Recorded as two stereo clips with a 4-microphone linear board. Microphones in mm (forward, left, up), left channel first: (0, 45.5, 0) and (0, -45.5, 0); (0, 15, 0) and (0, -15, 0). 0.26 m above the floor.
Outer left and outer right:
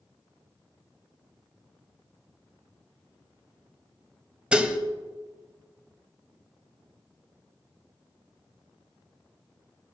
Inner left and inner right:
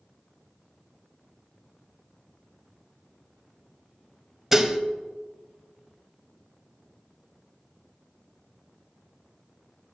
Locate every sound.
4.5 s dishes clattering: 10° right (ahead or behind), 0.7 m